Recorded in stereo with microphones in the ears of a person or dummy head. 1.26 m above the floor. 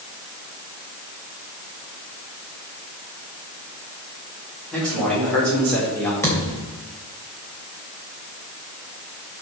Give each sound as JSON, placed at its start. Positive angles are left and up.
{"t": 4.7, "sound": "a man speaking", "side_deg": 5, "distance_m": 4.5}
{"t": 6.2, "sound": "a thud", "side_deg": 15, "distance_m": 3.0}